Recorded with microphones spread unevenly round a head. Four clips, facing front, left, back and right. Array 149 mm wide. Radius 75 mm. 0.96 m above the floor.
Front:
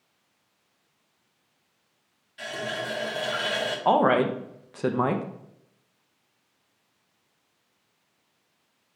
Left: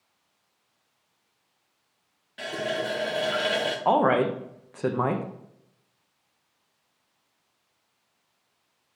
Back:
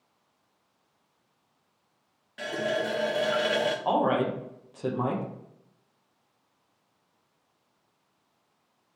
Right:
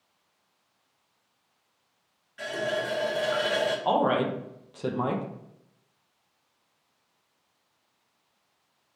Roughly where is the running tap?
Behind left.